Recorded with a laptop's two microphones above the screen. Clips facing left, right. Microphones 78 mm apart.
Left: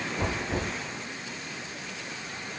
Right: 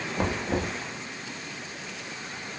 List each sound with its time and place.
0.2 s knocking: 70° right (ahead or behind), 0.7 m